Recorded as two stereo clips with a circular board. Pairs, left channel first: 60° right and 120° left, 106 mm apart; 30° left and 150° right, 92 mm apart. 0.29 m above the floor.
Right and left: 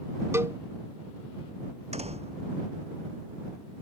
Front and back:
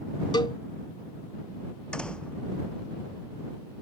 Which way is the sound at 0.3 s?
55° left.